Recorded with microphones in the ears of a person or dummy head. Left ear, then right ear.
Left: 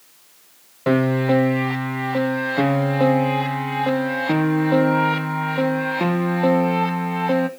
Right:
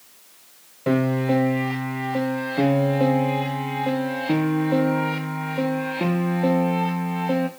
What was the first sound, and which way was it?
A piano, 35° left (ahead or behind).